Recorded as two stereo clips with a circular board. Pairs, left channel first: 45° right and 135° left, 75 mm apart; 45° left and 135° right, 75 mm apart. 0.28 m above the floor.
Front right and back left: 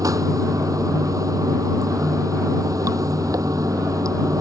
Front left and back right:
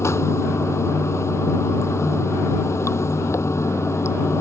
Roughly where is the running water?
Left.